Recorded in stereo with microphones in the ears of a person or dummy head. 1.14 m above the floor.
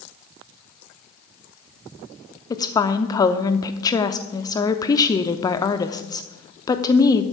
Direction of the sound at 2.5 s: 25° left (ahead or behind).